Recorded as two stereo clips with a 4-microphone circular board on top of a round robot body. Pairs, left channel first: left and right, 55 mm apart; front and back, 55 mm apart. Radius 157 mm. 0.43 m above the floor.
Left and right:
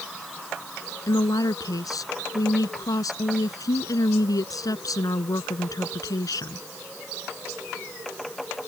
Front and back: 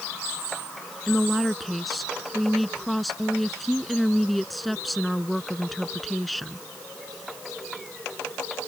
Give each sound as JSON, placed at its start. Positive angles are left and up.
{"t": 1.1, "sound": "a woman speaking", "azimuth_deg": 90}